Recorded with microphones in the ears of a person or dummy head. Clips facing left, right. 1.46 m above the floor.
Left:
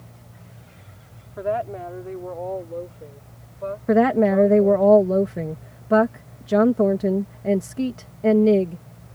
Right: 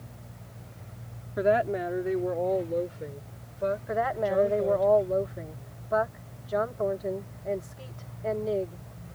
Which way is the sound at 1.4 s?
25° right (ahead or behind).